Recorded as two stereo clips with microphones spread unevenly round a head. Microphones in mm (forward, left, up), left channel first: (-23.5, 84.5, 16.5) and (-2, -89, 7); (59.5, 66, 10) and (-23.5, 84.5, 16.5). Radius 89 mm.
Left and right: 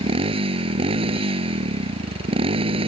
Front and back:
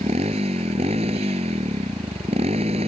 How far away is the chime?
I don't hear a chime.